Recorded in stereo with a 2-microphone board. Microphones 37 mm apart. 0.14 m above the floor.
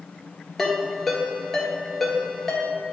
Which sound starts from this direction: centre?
A ringtone, at 0.6 s.